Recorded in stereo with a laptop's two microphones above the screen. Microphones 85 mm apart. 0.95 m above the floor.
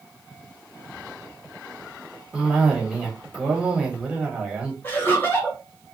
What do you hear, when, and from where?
2.3 s a cough: 10° right (ahead or behind), 0.8 m
4.8 s laughter: 25° left (ahead or behind), 1.5 m